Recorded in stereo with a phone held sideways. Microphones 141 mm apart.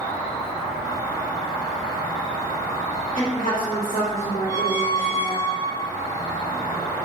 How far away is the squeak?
About 1.6 m.